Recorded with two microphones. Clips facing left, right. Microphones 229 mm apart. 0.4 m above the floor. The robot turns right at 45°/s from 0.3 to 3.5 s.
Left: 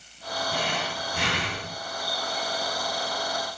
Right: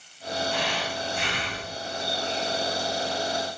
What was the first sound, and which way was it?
Breathing, 45° left.